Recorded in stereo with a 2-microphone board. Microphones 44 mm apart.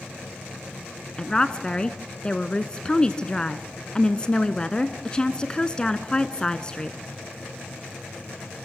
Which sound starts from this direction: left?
A woman speaking, at 1.2 s.